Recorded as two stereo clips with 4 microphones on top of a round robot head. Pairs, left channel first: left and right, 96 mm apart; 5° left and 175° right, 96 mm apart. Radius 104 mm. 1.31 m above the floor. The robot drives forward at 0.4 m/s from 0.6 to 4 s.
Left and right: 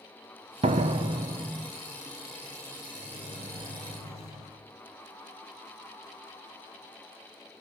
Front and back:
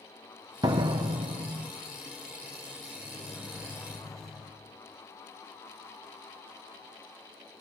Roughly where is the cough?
No cough in this recording.